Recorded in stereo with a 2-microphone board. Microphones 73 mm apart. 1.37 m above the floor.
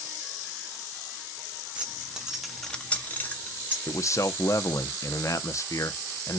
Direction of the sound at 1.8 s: 15° right (ahead or behind).